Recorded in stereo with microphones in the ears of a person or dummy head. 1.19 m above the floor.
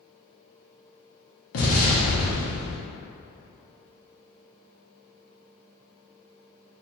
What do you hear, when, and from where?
1.5 s an explosion: 65° left (ahead or behind), 0.9 m